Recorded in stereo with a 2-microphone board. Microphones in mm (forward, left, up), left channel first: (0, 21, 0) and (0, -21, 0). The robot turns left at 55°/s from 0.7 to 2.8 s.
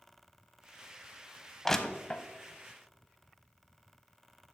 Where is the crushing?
10° left (ahead or behind), 0.6 m; by 2.2 s 25° left (ahead or behind), 0.6 m.